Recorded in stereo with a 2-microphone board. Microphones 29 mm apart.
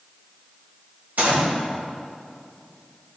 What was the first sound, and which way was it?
A gunshot, 70° right (ahead or behind).